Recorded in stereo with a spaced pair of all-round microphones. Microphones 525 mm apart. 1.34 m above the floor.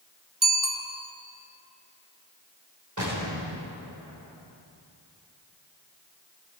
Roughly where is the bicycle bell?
Right.